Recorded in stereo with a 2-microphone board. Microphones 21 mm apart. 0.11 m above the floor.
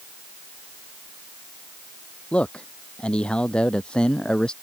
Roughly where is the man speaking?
Left.